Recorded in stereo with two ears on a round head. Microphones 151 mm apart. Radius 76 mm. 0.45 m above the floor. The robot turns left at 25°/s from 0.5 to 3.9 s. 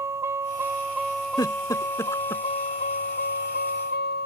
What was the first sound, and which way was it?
A vehicle, 165° right.